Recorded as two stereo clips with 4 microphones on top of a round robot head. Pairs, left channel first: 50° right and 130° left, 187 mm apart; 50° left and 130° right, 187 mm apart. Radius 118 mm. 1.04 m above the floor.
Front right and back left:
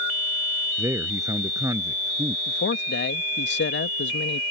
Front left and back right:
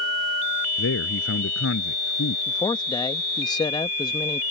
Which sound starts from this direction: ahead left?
A man speaking, at 0.8 s.